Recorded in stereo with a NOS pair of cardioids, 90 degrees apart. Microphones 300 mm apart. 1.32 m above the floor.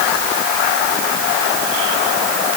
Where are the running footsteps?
No running footsteps in this recording.